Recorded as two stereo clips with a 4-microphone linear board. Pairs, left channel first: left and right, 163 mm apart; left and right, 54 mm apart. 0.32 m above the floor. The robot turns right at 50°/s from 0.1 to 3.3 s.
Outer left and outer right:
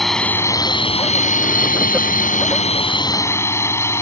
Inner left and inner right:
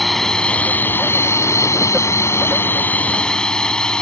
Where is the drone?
Straight ahead; by 4.0 s 160° left.